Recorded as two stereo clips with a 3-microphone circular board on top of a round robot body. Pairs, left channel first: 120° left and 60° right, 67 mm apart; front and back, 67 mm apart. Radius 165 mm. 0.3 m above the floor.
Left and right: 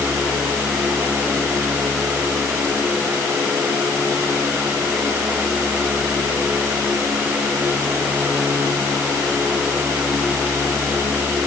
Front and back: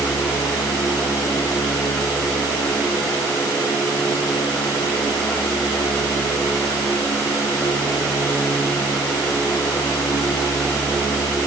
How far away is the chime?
I don't hear a chime.